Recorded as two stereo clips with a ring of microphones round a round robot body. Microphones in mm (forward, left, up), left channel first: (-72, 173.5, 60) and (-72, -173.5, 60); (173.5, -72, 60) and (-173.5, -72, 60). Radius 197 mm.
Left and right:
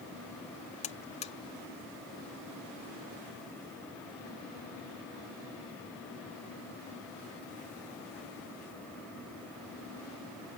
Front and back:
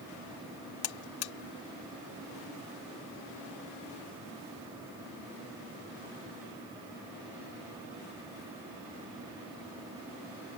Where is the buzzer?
20° left.